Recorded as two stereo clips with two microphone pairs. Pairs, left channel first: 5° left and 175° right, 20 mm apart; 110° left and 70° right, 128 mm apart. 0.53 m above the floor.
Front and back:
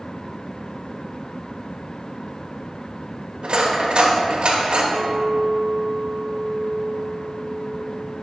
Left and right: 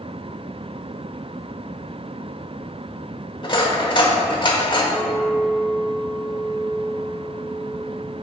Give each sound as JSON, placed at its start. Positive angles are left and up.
{"t": 3.4, "sound": "cutlery clinking", "azimuth_deg": 160, "distance_m": 1.2}
{"t": 4.9, "sound": "a clink", "azimuth_deg": -175, "distance_m": 0.9}